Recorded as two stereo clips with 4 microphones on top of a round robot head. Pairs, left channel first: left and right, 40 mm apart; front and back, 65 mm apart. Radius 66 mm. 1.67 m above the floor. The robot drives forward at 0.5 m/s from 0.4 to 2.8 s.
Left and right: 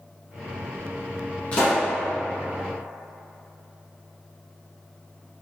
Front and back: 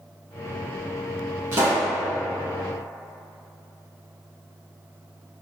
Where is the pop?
140° left, 1.1 m; by 1.9 s 150° left, 1.2 m.